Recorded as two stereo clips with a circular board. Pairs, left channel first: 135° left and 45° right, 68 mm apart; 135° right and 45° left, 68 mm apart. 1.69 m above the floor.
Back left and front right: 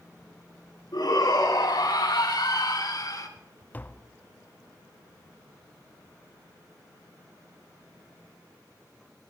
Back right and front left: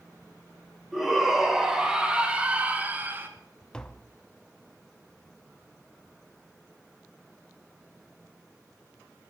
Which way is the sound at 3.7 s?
160° left.